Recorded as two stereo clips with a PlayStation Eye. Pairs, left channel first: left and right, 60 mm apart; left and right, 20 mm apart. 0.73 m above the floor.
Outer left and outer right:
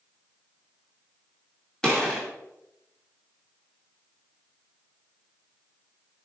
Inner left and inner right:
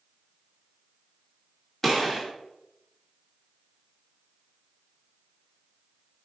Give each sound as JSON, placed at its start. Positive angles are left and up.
{"t": 1.8, "sound": "a gunshot", "side_deg": 10, "distance_m": 2.5}